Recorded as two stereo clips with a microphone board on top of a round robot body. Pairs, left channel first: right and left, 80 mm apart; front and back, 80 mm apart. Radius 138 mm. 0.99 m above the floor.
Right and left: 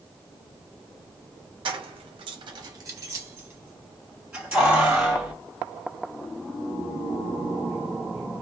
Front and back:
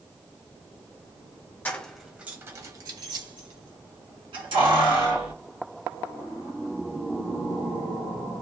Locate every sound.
1.6 s keys jangling: 70° left, 0.6 m; by 5.3 s 175° left, 1.8 m